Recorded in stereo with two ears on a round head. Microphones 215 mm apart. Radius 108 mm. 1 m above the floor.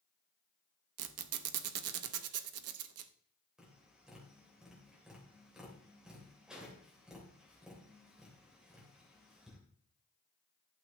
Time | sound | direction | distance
1.0 | a squeak | 70° right (ahead or behind) | 0.7 m
3.6 | tapping | 5° right (ahead or behind) | 3 m